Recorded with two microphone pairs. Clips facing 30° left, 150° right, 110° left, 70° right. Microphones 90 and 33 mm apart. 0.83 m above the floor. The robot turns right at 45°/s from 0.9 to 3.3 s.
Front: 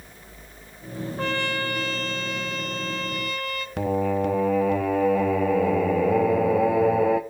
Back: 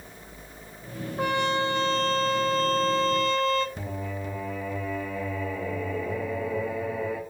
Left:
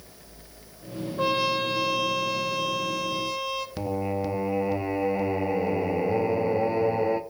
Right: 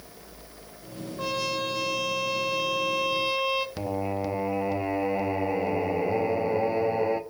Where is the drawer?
I don't hear a drawer.